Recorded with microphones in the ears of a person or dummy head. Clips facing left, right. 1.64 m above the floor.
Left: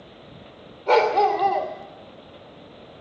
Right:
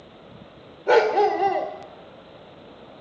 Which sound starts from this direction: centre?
A dog barking, at 0.9 s.